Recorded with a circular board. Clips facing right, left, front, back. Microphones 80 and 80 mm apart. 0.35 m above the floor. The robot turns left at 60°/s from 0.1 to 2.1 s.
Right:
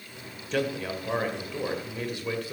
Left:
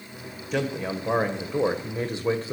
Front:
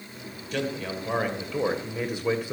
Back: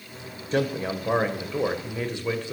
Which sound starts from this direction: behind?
A man speaking, at 0.5 s.